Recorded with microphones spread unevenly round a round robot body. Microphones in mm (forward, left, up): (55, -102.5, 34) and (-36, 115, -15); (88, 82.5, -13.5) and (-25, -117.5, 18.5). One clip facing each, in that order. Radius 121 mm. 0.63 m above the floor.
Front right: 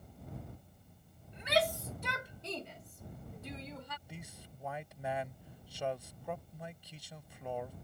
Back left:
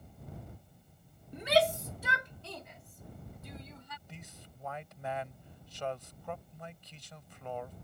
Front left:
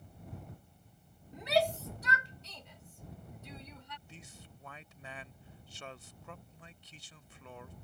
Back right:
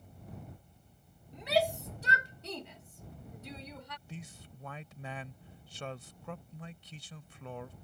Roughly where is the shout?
Behind left.